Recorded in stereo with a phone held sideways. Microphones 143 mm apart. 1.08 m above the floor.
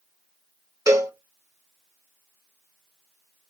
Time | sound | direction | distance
0.9 | a cowbell | 20° right (ahead or behind) | 0.7 m